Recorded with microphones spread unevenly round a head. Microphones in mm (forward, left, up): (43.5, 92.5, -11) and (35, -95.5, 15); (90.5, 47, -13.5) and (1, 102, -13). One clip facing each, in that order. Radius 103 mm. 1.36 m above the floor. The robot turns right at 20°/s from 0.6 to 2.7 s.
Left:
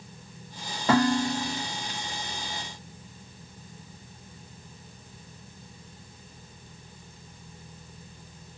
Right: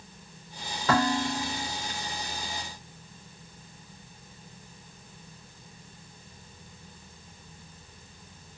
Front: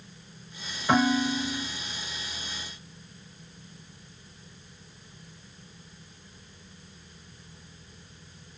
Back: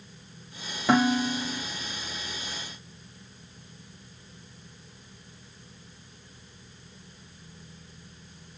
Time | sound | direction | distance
0.9 | dishes clattering | 170° left | 1.6 m